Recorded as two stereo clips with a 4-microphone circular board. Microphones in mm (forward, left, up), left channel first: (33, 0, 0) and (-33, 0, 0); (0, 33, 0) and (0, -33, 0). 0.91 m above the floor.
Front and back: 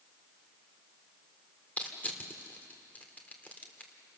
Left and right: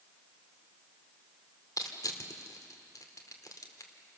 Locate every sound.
1.8 s crushing: 65° left, 2 m